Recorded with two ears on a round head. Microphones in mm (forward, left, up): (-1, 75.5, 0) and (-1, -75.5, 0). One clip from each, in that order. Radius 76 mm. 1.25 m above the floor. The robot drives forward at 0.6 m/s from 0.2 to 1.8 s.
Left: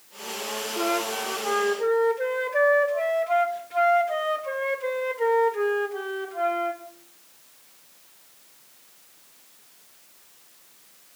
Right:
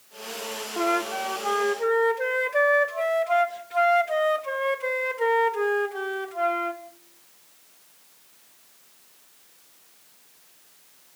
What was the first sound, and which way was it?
A flute, 40° right (ahead or behind).